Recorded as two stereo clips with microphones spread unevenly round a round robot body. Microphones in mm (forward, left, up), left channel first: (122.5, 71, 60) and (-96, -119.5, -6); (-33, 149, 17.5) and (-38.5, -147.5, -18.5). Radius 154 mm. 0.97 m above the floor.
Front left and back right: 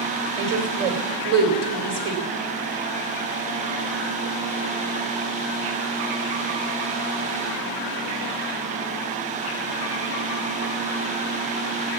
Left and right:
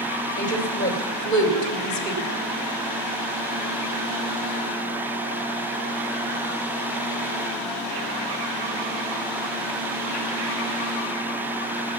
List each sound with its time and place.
0.4 s a woman speaking: 165° left, 3 m